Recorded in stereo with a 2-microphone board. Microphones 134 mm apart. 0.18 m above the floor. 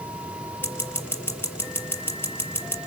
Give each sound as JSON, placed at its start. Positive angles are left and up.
{"t": 0.6, "sound": "scissors", "side_deg": 20, "distance_m": 5.0}